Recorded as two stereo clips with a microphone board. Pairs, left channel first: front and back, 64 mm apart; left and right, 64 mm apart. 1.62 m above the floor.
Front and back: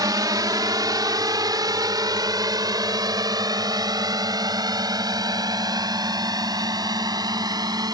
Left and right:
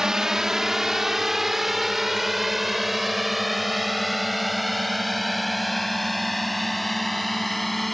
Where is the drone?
170° right; by 7.9 s straight behind.